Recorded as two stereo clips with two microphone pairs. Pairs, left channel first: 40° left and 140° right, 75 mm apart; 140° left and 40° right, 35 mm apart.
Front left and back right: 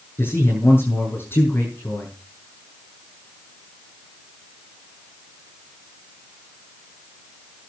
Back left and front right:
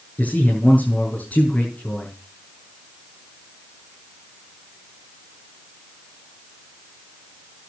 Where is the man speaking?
100° left, 6.5 m.